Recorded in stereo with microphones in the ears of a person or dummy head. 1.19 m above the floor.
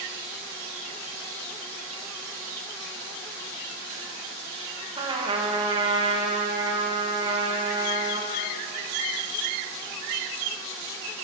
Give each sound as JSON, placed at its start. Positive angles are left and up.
{"t": 5.0, "sound": "a trumpet", "side_deg": -30, "distance_m": 1.5}